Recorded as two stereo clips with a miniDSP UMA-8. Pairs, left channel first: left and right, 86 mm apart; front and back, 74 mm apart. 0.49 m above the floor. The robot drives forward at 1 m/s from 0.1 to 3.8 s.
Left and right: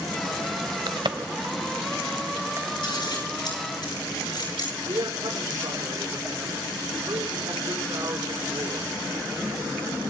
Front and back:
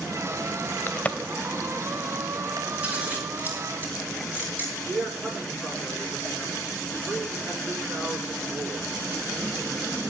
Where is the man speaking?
115° right, 7 m.